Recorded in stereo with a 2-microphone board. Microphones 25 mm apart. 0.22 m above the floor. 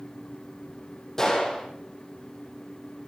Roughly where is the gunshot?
Centre.